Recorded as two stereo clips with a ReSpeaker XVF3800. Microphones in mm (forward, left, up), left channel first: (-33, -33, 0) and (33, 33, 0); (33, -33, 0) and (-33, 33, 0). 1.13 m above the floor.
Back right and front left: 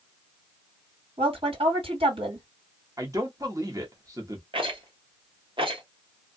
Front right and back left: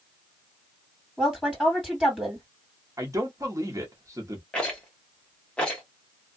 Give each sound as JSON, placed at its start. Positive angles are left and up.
{"t": 1.2, "sound": "a woman speaking", "azimuth_deg": 45, "distance_m": 2.0}
{"t": 3.0, "sound": "a man speaking", "azimuth_deg": 85, "distance_m": 1.0}
{"t": 4.5, "sound": "a rattle", "azimuth_deg": 35, "distance_m": 1.2}